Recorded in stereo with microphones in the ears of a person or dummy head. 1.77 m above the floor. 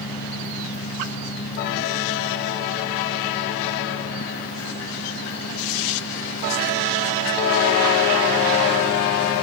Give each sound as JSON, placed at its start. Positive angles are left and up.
{"t": 0.0, "sound": "an engine running", "side_deg": 65}